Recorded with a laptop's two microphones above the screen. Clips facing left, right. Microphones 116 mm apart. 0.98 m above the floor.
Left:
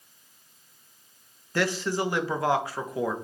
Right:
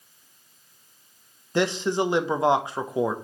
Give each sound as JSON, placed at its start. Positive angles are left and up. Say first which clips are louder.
{"t": 1.6, "sound": "a man speaking", "louder": "right 4 dB", "side_deg": -20, "distance_m": 0.6}